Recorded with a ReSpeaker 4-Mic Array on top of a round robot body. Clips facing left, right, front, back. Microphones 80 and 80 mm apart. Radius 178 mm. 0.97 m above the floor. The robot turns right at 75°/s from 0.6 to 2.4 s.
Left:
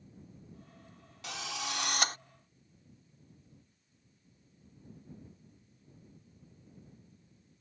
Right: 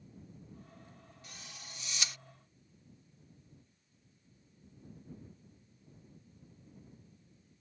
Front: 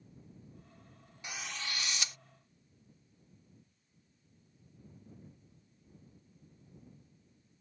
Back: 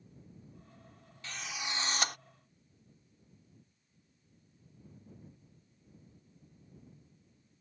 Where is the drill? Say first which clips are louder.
Left 17 dB, back 1 dB; 75° left; by 2.2 s 145° left.